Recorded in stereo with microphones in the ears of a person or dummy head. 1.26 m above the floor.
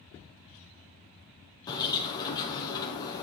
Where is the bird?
20° left (ahead or behind), 2 m.